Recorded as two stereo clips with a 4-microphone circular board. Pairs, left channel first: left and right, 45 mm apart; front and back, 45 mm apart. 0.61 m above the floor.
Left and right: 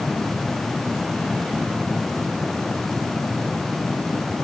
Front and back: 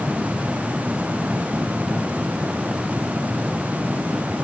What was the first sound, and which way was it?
Only background noise.